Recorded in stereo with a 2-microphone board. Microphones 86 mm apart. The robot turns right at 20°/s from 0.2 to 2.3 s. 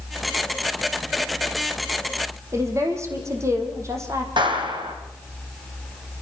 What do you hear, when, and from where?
2.5 s a woman speaking: 35° right (ahead or behind), 4.5 m
4.4 s a clap: 65° right (ahead or behind), 4 m